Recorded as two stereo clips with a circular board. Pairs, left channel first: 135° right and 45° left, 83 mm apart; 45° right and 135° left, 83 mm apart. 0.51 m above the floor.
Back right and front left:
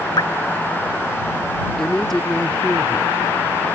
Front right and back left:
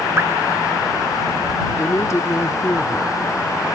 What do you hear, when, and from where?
0.2 s dripping: 165° right
1.8 s a woman speaking: 50° right